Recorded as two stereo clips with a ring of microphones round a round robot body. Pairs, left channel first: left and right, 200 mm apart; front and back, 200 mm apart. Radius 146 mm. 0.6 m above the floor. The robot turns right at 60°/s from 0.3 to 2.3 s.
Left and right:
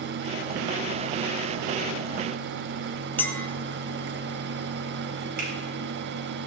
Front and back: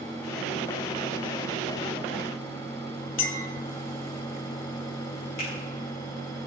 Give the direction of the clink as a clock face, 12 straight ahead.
12 o'clock.